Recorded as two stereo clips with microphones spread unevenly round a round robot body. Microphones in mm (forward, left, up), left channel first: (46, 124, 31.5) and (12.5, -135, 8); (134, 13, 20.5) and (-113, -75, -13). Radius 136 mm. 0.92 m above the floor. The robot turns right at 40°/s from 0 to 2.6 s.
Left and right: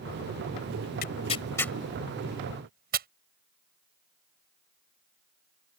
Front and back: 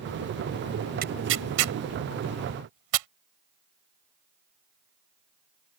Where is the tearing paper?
140° left; by 3.1 s 155° right.